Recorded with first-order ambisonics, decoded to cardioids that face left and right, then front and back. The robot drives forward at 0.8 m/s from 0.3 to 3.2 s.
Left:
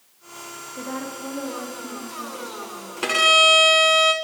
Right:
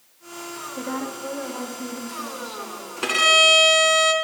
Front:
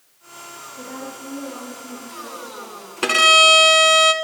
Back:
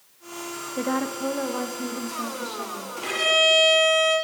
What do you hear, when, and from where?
0.8 s a woman speaking: 175° right, 0.6 m; by 2.9 s straight behind, 2.5 m
3.0 s a violin: 10° left, 1.1 m